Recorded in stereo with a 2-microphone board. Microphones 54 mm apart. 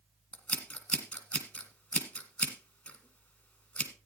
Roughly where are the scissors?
Left.